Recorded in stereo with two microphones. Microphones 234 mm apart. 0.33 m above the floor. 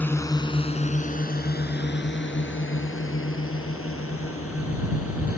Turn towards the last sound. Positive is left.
turn(degrees=75)  # may be behind; listen again after turning